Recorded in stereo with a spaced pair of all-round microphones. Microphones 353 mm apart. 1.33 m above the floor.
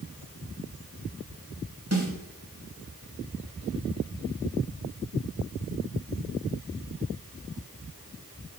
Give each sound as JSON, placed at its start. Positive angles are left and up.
{"t": 1.9, "sound": "a snare drum", "side_deg": -45, "distance_m": 3.0}